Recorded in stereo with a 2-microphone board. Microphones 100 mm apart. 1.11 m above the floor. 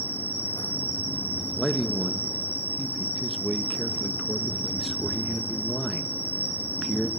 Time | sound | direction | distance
0.0 | an insect | 20° left (ahead or behind) | 5.5 m
1.6 | a man speaking | centre (ahead or behind) | 1.3 m